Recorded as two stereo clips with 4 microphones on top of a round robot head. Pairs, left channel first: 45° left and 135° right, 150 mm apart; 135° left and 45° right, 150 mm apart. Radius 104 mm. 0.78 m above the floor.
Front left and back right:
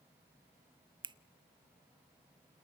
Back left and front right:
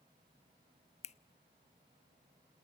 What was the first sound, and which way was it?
A finger snap, 170° left.